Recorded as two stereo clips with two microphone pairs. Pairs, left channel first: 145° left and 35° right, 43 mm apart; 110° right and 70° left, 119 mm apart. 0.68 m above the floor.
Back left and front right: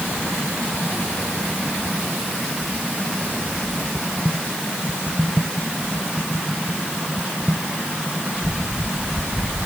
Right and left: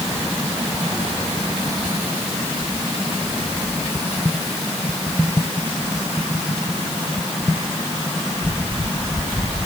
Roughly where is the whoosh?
No whoosh in this recording.